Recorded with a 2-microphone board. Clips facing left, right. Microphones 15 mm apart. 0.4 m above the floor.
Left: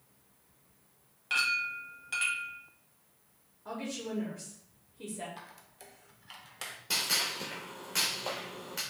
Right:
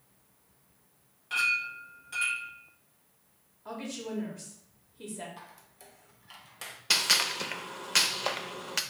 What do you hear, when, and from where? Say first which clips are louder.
1.3 s a clink: right 1 dB; 40° left (ahead or behind), 1.4 m
3.6 s a woman speaking: even; centre (ahead or behind), 1.3 m
5.4 s a squeak: even; 15° left (ahead or behind), 0.7 m
6.9 s a gunshot: right 5 dB; 50° right (ahead or behind), 0.6 m